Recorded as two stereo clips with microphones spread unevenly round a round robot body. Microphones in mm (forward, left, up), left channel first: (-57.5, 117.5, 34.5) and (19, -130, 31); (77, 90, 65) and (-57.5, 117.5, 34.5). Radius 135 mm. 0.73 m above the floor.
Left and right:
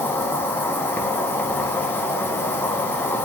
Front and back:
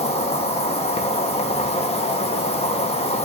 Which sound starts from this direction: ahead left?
An insect, at 0.0 s.